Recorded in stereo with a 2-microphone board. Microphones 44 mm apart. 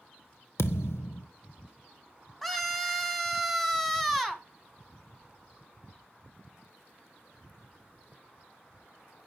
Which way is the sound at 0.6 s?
75° left (ahead or behind).